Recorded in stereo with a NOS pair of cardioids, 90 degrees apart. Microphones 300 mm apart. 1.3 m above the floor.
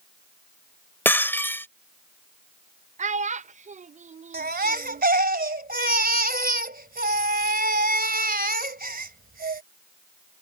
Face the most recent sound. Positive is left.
turn(degrees=-30)